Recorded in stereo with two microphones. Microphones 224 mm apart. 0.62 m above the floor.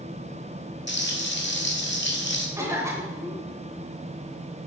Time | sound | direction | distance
0.9 | frying | 50° left (ahead or behind) | 2.0 m
2.6 | a cough | 10° right (ahead or behind) | 3 m